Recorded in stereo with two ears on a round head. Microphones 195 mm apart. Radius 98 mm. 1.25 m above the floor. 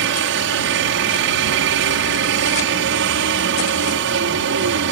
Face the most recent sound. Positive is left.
turn(degrees=-65)  # may be behind; listen again after turning